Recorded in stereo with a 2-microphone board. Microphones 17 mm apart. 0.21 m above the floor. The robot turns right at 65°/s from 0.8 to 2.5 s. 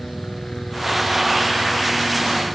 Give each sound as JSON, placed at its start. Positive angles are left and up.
{"t": 0.0, "sound": "a helicopter", "side_deg": 45}